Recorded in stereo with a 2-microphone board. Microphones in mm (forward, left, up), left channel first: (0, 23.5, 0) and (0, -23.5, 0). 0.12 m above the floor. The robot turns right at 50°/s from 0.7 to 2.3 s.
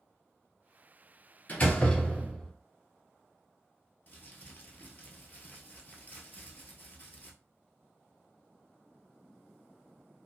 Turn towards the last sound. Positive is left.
turn(degrees=40)  # may be behind; listen again after turning